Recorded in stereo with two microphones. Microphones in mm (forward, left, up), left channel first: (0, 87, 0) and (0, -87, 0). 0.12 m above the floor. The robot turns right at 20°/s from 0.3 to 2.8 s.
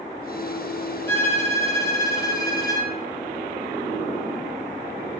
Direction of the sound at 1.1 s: 10° left (ahead or behind).